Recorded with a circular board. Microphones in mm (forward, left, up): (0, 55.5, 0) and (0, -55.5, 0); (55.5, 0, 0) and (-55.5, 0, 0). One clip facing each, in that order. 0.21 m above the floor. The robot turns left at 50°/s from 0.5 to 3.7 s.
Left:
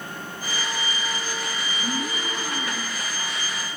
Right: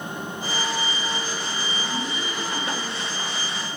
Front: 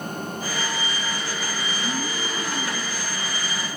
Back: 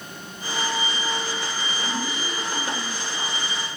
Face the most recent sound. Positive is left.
turn(degrees=-25)